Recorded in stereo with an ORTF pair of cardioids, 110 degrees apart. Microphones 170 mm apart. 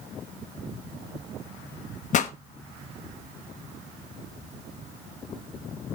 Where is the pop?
50° left, 1.1 m.